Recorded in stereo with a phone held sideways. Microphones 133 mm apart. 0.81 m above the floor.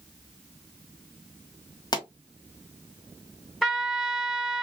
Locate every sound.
1.9 s a pop: 30° left (ahead or behind), 1.8 m
3.6 s a trumpet: 5° left (ahead or behind), 1.1 m